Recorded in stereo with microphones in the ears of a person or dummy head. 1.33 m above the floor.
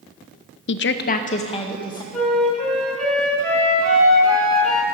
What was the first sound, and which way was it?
A woman speaking, 55° left (ahead or behind).